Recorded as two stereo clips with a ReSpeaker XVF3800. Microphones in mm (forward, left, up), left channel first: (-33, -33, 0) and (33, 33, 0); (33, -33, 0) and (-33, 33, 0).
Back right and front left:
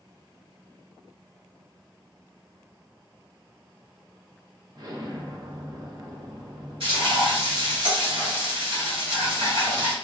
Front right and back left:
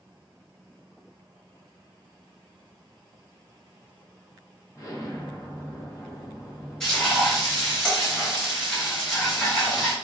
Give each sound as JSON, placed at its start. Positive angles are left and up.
{"t": 4.8, "sound": "an explosion", "azimuth_deg": 5, "distance_m": 0.7}
{"t": 6.8, "sound": "frying", "azimuth_deg": 40, "distance_m": 1.7}